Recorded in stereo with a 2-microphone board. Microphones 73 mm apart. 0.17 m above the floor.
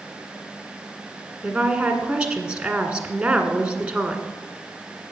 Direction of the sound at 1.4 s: 15° right (ahead or behind).